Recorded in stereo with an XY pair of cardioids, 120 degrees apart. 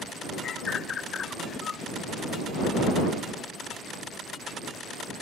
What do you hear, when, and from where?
0.4 s a bird: 45° left